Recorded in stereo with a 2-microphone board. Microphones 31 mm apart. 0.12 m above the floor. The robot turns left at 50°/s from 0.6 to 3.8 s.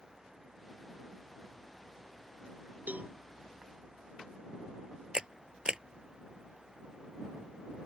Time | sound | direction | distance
2.9 | a cowbell | 65° right (ahead or behind) | ?
5.1 | a camera shutter | 30° right (ahead or behind) | ?